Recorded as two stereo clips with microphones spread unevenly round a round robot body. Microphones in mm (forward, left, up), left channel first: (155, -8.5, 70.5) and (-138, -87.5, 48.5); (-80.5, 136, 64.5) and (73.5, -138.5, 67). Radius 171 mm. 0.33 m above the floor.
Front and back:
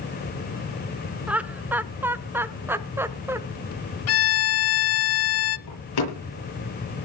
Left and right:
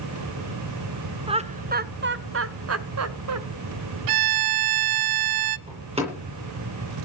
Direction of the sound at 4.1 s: 35° right.